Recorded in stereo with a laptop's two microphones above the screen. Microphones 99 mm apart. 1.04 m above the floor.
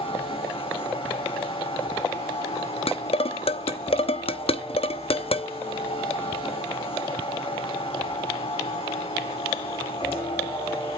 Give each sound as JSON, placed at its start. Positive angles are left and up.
{"t": 0.0, "sound": "a machine running", "side_deg": 70, "distance_m": 2.5}
{"t": 2.9, "sound": "dishes clattering", "side_deg": 75, "distance_m": 0.7}